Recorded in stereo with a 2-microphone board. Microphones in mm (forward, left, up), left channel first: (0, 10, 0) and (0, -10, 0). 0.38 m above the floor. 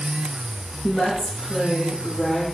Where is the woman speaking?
50° left (ahead or behind), 9 m; by 2.5 s 40° left (ahead or behind), 9 m.